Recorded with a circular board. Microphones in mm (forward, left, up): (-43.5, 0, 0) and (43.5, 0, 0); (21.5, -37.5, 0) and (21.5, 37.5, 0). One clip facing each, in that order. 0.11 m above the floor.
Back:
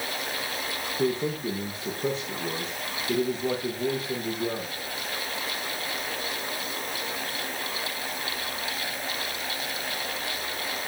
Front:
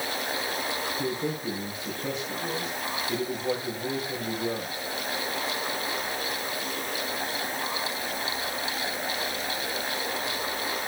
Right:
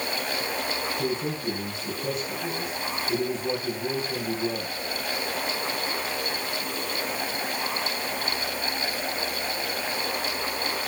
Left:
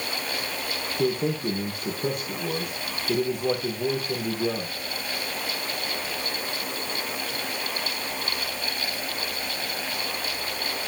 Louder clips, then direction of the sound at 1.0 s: Back 7 dB, left 7 dB; 130° left.